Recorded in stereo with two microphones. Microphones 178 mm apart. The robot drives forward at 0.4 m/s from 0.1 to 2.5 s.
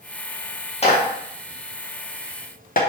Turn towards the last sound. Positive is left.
turn(degrees=55)  # may be behind; listen again after turning